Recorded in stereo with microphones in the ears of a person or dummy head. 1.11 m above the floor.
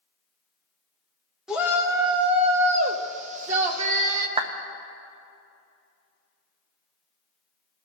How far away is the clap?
About 0.6 m.